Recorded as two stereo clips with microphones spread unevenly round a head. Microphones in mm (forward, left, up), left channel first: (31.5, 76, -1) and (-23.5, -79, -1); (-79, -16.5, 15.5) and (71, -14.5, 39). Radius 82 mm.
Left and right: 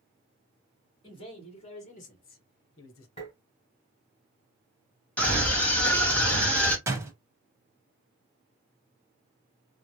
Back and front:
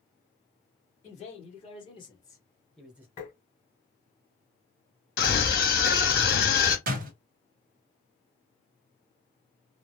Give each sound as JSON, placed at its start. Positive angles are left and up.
{"t": 1.0, "sound": "a man speaking", "azimuth_deg": 135, "distance_m": 2.0}
{"t": 3.2, "sound": "tapping", "azimuth_deg": 125, "distance_m": 2.5}
{"t": 5.2, "sound": "a scream", "azimuth_deg": 150, "distance_m": 2.0}
{"t": 6.9, "sound": "a door slam", "azimuth_deg": -35, "distance_m": 1.0}